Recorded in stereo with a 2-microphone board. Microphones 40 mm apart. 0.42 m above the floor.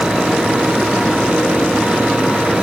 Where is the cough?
No cough in this recording.